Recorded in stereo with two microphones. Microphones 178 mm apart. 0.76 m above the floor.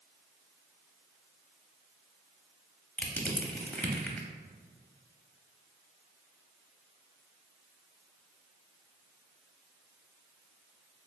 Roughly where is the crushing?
Centre.